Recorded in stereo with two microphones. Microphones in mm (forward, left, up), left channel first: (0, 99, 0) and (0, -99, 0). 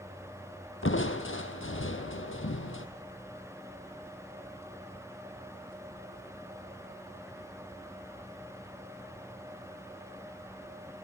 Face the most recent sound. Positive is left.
turn(degrees=85)